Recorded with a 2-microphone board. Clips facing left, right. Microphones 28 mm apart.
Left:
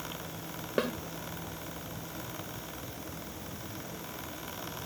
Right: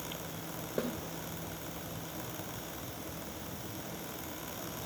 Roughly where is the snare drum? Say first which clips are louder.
Left 5 dB; left.